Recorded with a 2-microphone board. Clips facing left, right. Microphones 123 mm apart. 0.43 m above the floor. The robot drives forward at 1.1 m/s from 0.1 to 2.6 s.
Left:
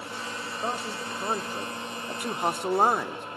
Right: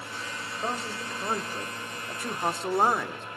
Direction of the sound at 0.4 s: 5° left (ahead or behind).